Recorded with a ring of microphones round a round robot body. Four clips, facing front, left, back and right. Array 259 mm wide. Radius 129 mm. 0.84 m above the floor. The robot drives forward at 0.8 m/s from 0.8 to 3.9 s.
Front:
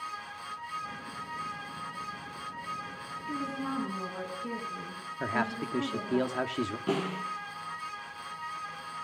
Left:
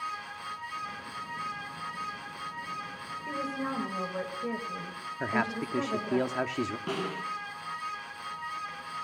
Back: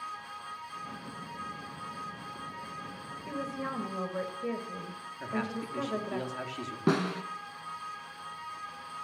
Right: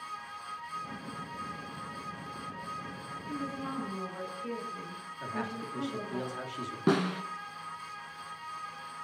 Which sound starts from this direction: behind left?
A woman speaking, at 3.3 s.